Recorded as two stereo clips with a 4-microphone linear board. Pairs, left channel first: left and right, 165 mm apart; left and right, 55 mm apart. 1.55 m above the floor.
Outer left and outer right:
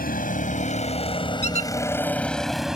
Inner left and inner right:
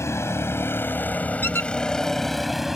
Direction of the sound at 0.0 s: 60° left (ahead or behind).